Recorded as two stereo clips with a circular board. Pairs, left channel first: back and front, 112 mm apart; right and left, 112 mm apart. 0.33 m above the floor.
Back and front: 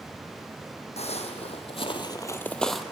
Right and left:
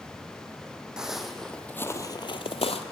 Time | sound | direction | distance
1.0 | footsteps | 175° left | 0.9 m